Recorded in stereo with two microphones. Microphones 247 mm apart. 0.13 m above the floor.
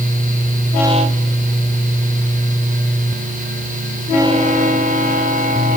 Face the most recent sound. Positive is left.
No sound to turn to.